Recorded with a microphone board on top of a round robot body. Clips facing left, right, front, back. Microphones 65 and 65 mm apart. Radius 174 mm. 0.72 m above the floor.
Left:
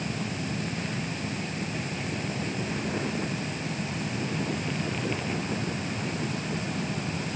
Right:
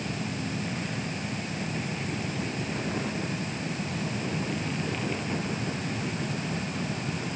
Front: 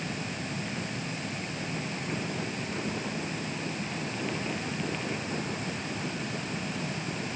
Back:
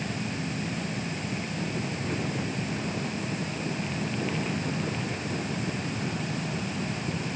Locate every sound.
Only background noise.